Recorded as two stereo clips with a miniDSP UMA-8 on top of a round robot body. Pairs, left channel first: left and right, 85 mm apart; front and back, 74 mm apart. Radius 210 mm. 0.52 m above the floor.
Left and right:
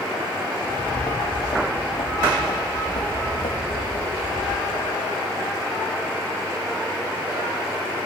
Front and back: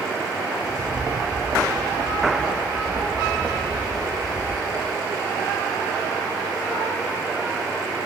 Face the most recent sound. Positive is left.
turn(degrees=90)